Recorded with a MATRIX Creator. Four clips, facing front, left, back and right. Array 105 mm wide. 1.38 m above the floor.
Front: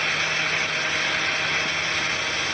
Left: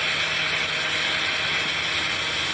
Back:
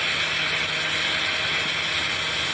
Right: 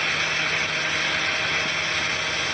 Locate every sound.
Only background noise.